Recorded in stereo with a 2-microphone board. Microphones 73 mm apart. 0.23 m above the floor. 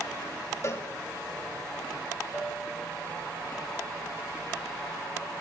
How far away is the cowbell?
About 0.8 m.